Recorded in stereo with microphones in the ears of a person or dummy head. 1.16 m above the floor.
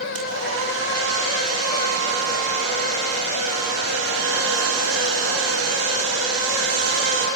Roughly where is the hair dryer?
Right.